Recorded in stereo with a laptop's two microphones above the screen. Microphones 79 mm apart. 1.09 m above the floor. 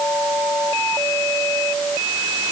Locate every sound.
Only background noise.